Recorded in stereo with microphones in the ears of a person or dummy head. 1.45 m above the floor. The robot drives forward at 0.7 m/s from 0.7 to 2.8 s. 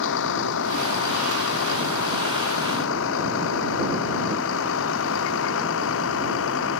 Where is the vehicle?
70° left (ahead or behind); by 6.8 s 75° left (ahead or behind).